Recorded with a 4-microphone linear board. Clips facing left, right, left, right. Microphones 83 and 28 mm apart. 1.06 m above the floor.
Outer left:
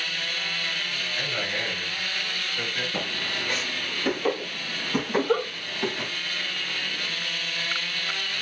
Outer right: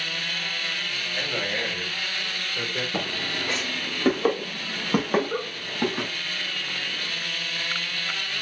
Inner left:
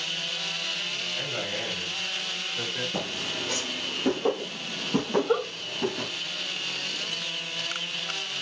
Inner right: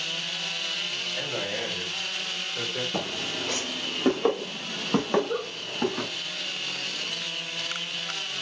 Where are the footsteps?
15° right (ahead or behind), 4.5 m; by 6.1 s 60° right (ahead or behind), 5.5 m.